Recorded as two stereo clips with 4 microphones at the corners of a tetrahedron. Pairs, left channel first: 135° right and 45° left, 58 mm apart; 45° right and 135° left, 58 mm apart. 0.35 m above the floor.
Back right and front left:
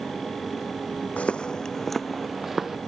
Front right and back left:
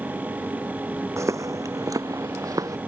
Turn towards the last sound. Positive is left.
turn(degrees=130)